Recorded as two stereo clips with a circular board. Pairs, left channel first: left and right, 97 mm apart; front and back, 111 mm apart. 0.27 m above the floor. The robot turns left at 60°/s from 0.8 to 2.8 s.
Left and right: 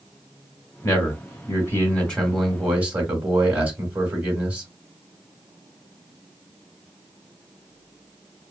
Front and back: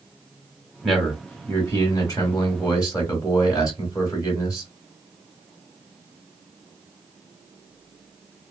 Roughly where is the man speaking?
Left.